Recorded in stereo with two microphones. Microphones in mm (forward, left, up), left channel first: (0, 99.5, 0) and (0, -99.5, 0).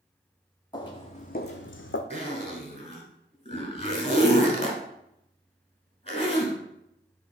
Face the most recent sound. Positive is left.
turn(degrees=30)  # may be behind; listen again after turning